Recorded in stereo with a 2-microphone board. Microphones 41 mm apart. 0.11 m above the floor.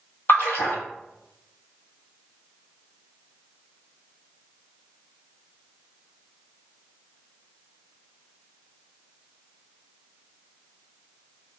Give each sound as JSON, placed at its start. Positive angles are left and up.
{"t": 0.3, "sound": "a splash", "side_deg": 75, "distance_m": 0.8}